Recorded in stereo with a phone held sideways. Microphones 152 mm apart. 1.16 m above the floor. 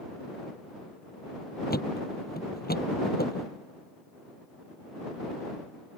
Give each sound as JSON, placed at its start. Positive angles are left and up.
{"t": 1.7, "sound": "a thud", "side_deg": 85}